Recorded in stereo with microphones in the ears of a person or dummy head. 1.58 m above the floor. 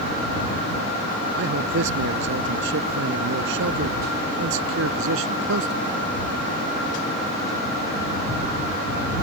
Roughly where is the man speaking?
Right.